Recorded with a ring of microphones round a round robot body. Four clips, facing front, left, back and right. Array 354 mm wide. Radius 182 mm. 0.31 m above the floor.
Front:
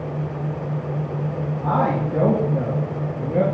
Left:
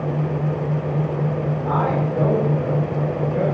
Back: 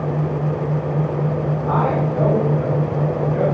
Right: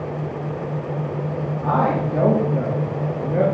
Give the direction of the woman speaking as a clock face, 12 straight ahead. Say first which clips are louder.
Right 3 dB, even; 1 o'clock.